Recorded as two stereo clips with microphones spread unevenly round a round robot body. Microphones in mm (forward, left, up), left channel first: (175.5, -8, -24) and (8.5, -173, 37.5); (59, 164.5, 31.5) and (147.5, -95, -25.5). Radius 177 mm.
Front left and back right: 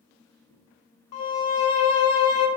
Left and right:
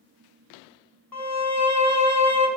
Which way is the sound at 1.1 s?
25° left.